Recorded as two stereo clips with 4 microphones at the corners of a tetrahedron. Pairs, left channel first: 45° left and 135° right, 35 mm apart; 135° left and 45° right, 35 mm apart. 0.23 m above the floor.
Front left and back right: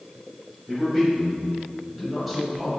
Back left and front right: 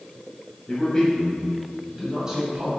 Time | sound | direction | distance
0.7 | a man speaking | 140° left | 1.3 m